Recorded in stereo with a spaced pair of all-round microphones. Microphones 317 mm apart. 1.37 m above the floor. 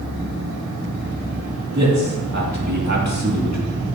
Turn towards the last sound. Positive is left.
turn(degrees=-55)  # may be behind; listen again after turning